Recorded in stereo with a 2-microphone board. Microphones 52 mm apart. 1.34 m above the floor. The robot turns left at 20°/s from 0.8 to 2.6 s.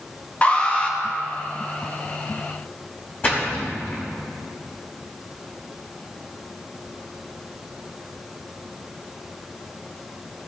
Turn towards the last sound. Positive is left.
turn(degrees=35)  # may be behind; listen again after turning